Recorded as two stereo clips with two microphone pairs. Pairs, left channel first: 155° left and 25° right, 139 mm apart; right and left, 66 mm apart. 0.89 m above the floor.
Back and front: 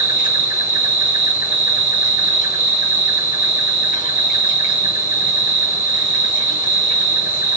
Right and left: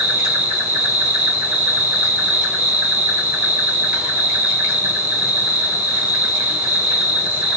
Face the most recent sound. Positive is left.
turn(degrees=155)